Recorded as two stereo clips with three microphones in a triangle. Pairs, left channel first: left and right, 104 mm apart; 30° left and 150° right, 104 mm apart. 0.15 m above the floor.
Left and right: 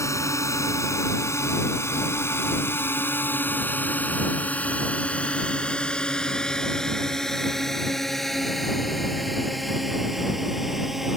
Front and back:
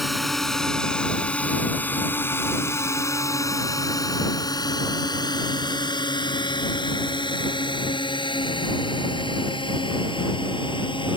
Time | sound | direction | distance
0.0 | a drone | 120° left | ?